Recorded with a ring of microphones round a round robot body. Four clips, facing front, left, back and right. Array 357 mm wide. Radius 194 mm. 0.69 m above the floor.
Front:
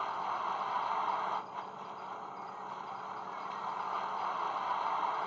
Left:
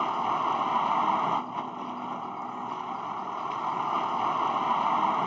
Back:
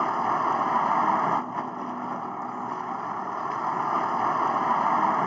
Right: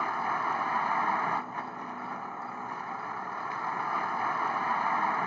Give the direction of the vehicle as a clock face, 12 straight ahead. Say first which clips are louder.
Left 3 dB, back 11 dB; 7 o'clock.